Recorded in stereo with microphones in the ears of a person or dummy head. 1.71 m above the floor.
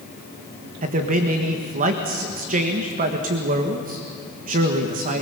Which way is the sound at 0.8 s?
40° right (ahead or behind).